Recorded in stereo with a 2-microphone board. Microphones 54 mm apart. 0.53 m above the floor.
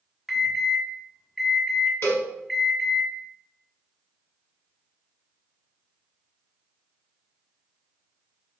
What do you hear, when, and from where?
0.3 s an alarm: centre (ahead or behind), 0.7 m
2.0 s a cowbell: 50° left (ahead or behind), 1.1 m